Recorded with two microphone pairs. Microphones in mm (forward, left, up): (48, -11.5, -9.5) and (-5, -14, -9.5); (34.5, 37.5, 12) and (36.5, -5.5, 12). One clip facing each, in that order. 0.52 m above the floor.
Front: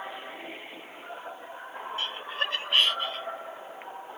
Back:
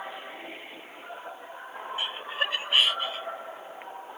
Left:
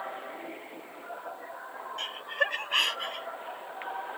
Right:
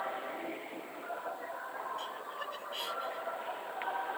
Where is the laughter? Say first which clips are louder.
Back 2 dB, left 10 dB; 110° left; by 3.3 s 100° left.